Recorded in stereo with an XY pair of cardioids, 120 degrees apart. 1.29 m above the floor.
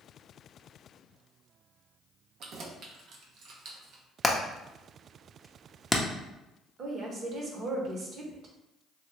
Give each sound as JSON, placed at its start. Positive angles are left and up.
{"t": 2.4, "sound": "keys jangling", "azimuth_deg": -65, "distance_m": 0.7}
{"t": 4.2, "sound": "hammering", "azimuth_deg": 15, "distance_m": 0.7}
{"t": 6.8, "sound": "a woman speaking", "azimuth_deg": -50, "distance_m": 1.0}